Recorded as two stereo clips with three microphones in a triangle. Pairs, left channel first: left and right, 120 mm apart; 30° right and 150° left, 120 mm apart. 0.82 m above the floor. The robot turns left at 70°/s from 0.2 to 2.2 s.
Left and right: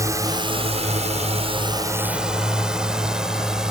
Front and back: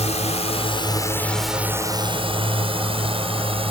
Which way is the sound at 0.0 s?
30° right.